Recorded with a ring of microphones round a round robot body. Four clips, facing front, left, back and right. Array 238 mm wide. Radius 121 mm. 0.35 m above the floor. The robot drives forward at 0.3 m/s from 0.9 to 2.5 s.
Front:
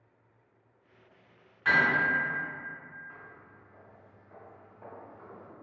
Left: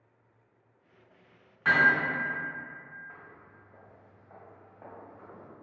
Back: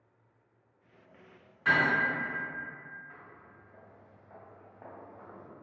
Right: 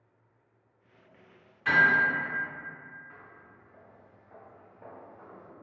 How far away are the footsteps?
About 1.4 m.